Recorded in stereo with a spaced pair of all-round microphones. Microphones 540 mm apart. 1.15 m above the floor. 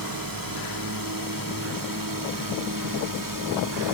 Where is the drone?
35° right (ahead or behind).